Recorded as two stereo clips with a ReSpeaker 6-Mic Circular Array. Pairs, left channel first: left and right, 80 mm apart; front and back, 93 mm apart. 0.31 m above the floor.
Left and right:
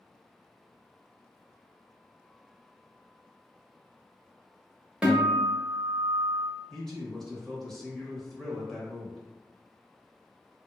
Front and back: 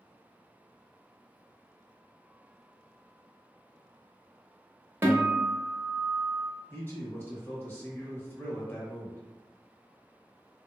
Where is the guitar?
150° right, 0.8 m.